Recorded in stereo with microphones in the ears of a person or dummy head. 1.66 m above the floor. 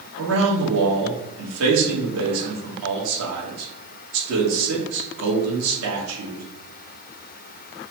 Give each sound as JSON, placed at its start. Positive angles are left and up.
{"t": 0.2, "sound": "a man speaking", "side_deg": -80, "distance_m": 1.3}